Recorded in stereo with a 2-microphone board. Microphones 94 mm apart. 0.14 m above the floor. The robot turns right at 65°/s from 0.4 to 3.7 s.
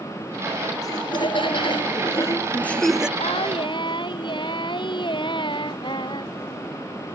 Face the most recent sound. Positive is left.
turn(degrees=125)